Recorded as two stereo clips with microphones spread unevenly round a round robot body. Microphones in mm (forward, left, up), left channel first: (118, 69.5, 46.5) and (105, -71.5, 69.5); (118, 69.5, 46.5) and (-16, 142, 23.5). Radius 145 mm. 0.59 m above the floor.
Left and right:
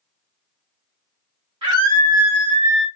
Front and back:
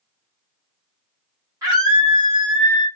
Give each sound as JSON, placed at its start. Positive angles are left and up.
{"t": 1.6, "sound": "a scream", "azimuth_deg": -155, "distance_m": 1.2}